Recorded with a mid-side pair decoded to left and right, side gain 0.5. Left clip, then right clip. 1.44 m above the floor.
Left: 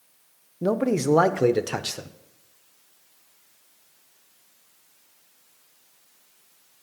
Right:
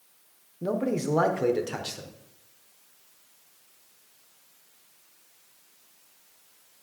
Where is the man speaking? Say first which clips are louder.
Left 5 dB; 40° left, 0.8 m.